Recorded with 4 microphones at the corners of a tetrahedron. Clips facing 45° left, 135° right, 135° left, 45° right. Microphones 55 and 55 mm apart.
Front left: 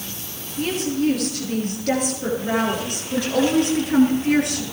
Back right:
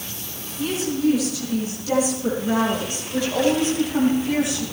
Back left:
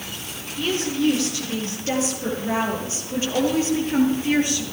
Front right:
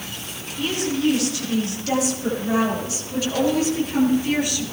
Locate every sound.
0.6 s a woman speaking: 80° left, 9.5 m